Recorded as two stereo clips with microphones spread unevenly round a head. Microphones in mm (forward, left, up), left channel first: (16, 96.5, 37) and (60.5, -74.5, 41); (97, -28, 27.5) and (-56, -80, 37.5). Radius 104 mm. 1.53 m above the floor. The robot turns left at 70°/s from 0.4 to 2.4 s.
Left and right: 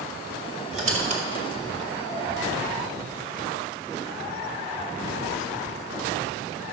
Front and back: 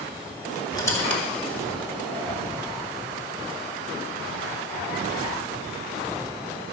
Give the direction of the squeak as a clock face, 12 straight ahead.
1 o'clock.